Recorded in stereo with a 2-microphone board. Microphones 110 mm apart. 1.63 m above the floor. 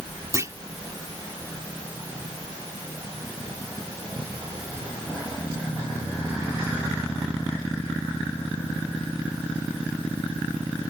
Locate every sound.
0.3 s a clunk: 30° right (ahead or behind)